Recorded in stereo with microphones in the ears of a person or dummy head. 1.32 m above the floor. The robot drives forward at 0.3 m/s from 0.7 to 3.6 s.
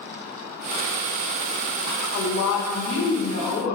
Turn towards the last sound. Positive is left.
turn(degrees=55)  # may be behind; listen again after turning